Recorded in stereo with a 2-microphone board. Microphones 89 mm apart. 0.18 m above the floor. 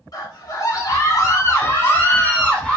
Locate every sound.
0.1 s a scream: 45° left (ahead or behind), 1.7 m; by 2.8 s 5° left (ahead or behind), 1.5 m